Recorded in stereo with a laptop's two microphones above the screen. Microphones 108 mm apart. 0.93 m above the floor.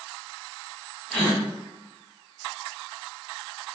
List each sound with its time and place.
1.1 s a gasp: 5° left (ahead or behind), 0.6 m